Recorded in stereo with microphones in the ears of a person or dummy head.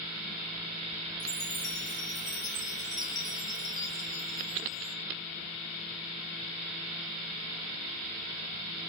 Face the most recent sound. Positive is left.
turn(degrees=25)  # may be behind; listen again after turning